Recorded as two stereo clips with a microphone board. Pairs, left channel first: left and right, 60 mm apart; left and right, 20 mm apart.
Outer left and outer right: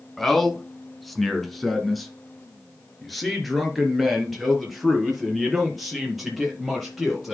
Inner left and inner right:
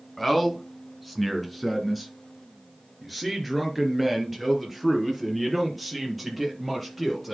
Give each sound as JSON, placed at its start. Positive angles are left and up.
{"t": 0.2, "sound": "a man speaking", "side_deg": 5, "distance_m": 2.0}